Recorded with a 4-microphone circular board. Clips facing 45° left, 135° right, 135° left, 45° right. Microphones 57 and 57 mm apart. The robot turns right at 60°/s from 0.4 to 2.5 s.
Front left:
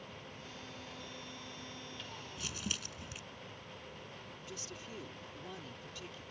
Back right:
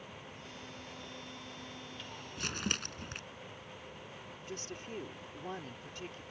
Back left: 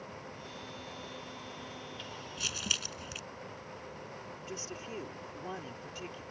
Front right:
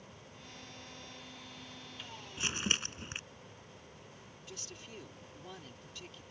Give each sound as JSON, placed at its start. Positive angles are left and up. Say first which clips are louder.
{"t": 2.4, "sound": "crumpling", "louder": "back right 6 dB, front right 3 dB", "azimuth_deg": -110}
{"t": 4.5, "sound": "a woman speaking", "louder": "back right 5 dB, back left 7 dB", "azimuth_deg": -175}